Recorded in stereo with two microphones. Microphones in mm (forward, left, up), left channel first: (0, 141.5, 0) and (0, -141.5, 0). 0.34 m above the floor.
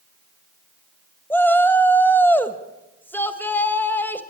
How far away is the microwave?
I don't hear a microwave.